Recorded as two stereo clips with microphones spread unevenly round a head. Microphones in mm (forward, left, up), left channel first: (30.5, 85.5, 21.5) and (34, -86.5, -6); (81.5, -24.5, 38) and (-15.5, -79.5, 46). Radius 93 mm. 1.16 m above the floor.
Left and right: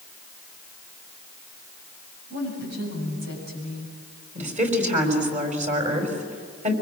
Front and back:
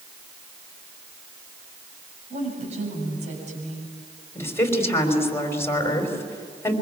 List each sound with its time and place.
2.3 s a woman speaking: 130° right, 7.5 m; by 4.0 s 135° right, 8.5 m
4.3 s a woman speaking: 40° right, 5.5 m